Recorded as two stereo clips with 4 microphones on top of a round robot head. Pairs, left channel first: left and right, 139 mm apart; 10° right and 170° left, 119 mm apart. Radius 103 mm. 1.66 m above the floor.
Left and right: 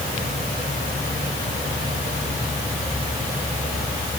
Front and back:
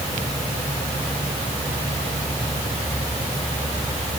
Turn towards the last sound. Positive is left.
No sound to turn to.